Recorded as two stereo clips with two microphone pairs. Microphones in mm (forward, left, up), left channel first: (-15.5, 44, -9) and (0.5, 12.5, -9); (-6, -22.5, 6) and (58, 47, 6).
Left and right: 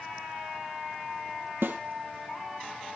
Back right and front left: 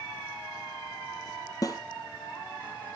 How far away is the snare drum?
About 1.3 m.